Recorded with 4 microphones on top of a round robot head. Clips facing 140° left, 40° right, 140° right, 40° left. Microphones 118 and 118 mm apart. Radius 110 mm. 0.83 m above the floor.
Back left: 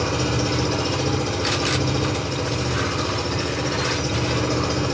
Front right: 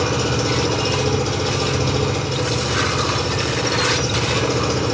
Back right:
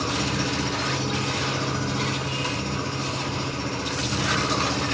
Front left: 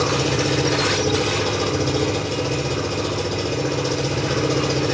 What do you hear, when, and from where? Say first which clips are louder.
0.0 s an engine running: front right 3 dB, front left 6 dB; 40° left, 3 m